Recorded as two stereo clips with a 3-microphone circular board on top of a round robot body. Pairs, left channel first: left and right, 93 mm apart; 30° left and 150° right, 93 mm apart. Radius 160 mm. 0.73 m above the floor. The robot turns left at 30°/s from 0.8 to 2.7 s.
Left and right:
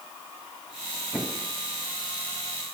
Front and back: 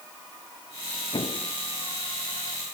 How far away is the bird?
I don't hear a bird.